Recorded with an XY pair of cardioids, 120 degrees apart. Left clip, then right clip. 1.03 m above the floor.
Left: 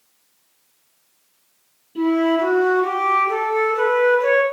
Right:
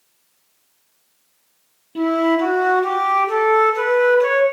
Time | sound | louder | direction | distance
1.9 | a flute | right 1 dB | 50° right | 0.7 m